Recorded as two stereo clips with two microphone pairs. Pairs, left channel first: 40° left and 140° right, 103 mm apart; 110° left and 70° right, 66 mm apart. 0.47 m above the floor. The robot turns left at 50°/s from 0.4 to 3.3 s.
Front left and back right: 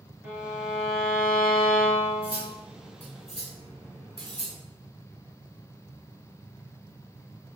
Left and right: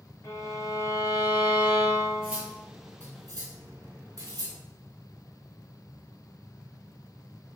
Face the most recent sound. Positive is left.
turn(degrees=-45)